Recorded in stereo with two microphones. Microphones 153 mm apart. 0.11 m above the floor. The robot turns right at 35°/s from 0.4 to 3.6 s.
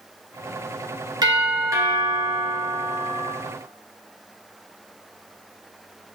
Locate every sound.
1.2 s a doorbell: 25° right (ahead or behind), 1.7 m; by 3.3 s centre (ahead or behind), 1.7 m